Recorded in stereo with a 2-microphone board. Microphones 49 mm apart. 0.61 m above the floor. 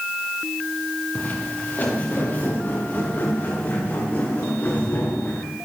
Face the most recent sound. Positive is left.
turn(degrees=45)  # may be behind; listen again after turning